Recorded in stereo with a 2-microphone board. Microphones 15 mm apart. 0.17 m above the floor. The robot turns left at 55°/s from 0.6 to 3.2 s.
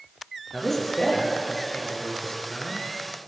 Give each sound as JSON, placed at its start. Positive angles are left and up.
{"t": 0.5, "sound": "a man speaking", "azimuth_deg": 165, "distance_m": 2.5}